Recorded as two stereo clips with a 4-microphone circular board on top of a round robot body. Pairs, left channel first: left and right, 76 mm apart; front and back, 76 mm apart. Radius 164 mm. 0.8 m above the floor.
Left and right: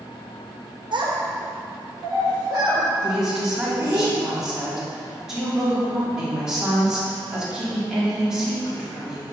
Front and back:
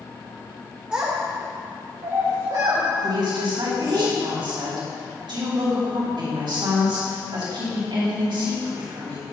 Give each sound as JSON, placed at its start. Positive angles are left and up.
{"t": 0.9, "sound": "a child speaking", "azimuth_deg": -105, "distance_m": 1.0}
{"t": 3.0, "sound": "a woman speaking", "azimuth_deg": -175, "distance_m": 2.5}